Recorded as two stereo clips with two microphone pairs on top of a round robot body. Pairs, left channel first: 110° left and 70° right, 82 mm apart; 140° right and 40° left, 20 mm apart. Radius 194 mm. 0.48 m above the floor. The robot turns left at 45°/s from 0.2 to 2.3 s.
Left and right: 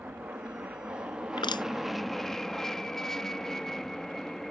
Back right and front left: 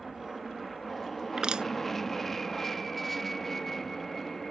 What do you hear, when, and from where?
0.0 s an aircraft: 65° right; by 4.5 s 160° right
1.4 s crushing: 90° left; by 1.7 s 75° left